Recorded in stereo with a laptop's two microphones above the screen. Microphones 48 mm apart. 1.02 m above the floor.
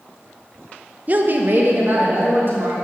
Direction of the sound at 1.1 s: 35° right (ahead or behind).